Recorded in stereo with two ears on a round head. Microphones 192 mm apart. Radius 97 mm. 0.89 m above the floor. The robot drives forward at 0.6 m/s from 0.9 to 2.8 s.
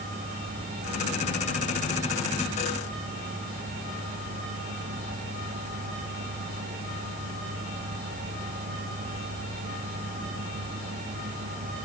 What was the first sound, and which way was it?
Only background noise.